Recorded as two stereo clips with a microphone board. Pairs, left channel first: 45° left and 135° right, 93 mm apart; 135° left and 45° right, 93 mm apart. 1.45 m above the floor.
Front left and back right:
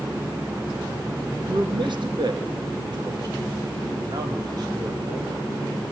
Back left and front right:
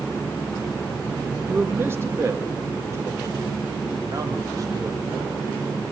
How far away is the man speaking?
About 2 m.